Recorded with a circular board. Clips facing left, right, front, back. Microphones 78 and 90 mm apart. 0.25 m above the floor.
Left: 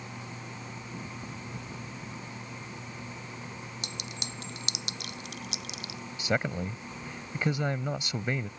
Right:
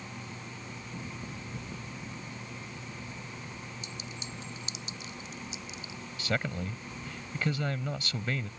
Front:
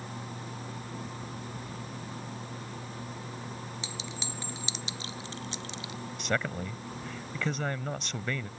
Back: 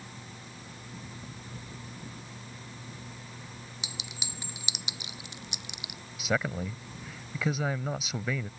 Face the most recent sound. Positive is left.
turn(degrees=110)